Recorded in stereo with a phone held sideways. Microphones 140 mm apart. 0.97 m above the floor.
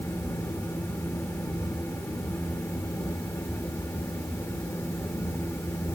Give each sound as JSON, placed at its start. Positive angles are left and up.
{"t": 0.0, "sound": "a fan", "side_deg": 20, "distance_m": 1.2}